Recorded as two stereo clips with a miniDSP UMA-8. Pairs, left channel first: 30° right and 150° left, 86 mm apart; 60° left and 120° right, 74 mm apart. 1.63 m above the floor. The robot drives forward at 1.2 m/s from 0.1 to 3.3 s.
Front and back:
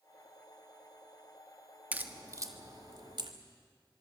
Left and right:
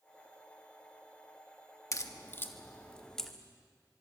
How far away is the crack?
About 1.5 m.